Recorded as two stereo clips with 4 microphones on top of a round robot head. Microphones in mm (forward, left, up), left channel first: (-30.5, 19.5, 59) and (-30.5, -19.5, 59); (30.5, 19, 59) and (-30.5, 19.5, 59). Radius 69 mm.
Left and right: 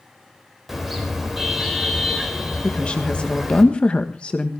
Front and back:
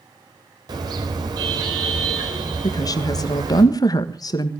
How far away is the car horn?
About 4 m.